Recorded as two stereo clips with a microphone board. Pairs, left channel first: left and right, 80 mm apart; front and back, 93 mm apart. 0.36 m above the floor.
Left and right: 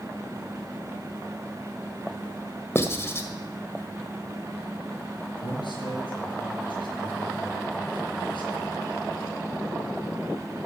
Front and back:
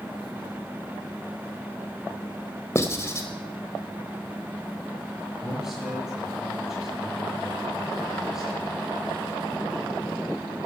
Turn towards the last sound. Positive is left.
turn(degrees=95)